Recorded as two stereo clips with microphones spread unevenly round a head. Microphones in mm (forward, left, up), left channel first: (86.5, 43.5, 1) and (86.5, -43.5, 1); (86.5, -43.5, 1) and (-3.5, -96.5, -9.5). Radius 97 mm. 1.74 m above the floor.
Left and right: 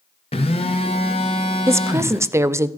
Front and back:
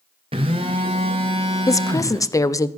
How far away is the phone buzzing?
About 0.9 m.